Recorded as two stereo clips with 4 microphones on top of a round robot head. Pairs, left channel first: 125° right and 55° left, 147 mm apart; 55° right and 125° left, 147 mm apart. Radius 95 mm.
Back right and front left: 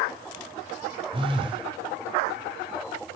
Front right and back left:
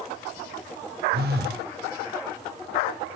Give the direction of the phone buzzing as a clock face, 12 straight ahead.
8 o'clock.